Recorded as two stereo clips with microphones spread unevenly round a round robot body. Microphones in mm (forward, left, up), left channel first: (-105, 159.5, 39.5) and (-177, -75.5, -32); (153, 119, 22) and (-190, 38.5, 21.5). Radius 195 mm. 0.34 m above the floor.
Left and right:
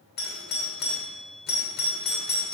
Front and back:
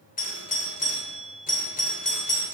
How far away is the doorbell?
About 1.7 m.